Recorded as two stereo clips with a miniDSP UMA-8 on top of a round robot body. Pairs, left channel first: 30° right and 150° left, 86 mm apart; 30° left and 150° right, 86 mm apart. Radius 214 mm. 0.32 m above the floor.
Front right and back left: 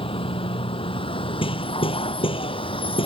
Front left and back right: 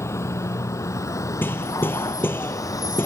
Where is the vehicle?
25° right; by 3.1 s 20° right.